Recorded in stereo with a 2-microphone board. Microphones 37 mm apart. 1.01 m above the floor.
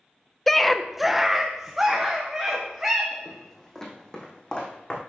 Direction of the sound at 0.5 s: 5° left (ahead or behind).